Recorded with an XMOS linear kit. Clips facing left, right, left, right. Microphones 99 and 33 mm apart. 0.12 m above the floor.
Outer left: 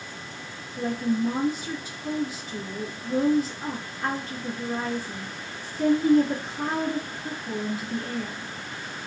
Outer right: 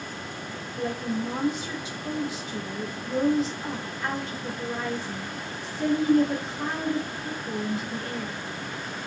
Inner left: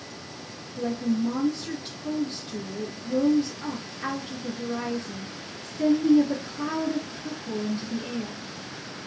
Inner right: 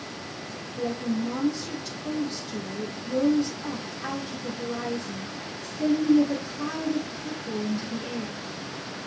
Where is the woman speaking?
45° left (ahead or behind), 2.5 m.